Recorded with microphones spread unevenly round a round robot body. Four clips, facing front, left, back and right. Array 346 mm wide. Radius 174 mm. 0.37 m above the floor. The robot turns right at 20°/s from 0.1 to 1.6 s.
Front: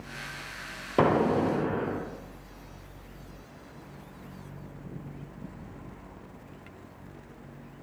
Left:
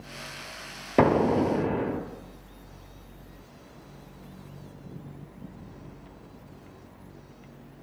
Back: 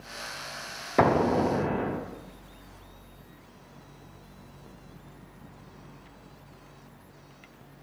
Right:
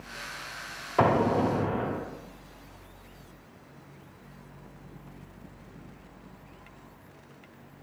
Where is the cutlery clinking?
I don't hear cutlery clinking.